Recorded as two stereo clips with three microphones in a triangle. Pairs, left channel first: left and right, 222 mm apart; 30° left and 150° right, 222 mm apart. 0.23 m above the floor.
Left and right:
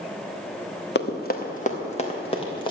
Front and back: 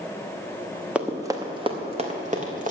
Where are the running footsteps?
125° left, 1.8 m; by 2.7 s 160° left, 3.5 m.